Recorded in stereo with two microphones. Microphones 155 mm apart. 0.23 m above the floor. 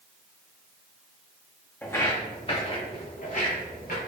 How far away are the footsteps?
About 0.8 m.